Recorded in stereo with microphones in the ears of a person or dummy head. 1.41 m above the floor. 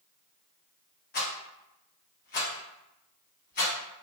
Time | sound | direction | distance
1.1 | a rattle | 50° left (ahead or behind) | 0.9 m